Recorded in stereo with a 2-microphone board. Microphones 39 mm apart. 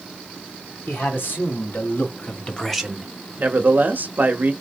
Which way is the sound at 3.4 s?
50° right (ahead or behind).